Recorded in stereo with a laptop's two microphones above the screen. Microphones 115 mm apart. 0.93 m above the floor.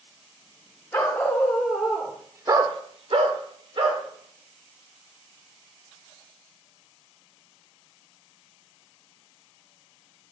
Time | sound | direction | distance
0.9 | a dog barking | 15° left (ahead or behind) | 1.7 m